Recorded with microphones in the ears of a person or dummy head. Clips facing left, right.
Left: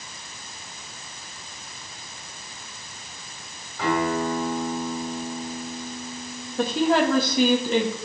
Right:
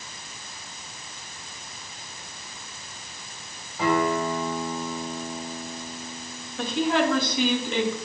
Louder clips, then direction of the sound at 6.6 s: Left 3 dB; 30° left (ahead or behind).